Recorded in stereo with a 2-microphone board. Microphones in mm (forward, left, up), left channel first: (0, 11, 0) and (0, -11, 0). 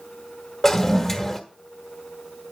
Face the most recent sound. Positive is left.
turn(degrees=20)  # may be behind; listen again after turning